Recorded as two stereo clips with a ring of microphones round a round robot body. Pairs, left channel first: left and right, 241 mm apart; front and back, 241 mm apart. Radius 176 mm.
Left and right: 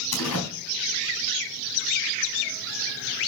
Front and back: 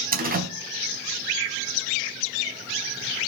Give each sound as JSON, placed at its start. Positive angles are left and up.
{"t": 0.1, "sound": "a door slam", "azimuth_deg": 130, "distance_m": 4.0}